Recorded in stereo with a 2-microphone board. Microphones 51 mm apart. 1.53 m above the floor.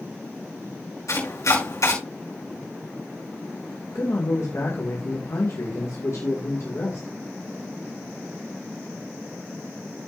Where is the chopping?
75° left (ahead or behind), 6 m.